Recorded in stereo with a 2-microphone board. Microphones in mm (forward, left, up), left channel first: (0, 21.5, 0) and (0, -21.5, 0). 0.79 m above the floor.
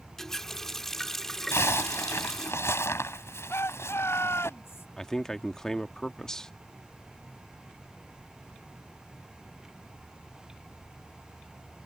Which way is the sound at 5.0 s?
10° left (ahead or behind).